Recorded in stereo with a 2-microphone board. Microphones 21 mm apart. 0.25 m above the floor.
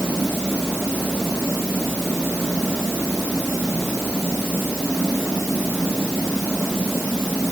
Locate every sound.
Only background noise.